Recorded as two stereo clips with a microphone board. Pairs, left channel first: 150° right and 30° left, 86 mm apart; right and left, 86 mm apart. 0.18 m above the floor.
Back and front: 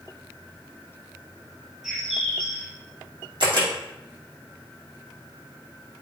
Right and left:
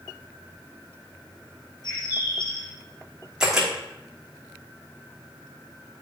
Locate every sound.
1.8 s a bird: 55° right, 3 m
3.4 s a camera shutter: 5° left, 3 m